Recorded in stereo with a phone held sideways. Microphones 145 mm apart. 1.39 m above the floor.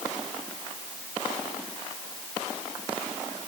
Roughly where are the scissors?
I don't hear scissors.